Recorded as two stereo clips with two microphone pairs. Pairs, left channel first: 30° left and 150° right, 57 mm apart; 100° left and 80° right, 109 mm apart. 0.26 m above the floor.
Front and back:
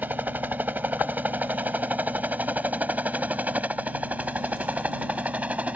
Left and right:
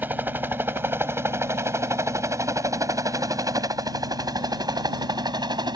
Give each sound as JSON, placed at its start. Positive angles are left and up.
{"t": 0.0, "sound": "a helicopter", "azimuth_deg": -140}